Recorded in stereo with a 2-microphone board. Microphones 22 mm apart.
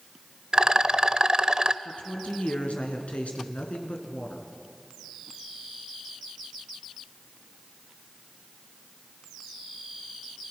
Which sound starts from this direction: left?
A woman speaking, at 1.9 s.